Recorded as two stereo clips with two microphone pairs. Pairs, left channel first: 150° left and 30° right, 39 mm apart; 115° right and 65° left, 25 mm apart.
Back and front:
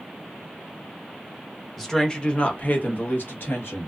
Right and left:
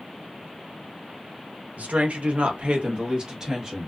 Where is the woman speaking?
65° left, 0.8 m; by 3.9 s 130° left, 1.2 m.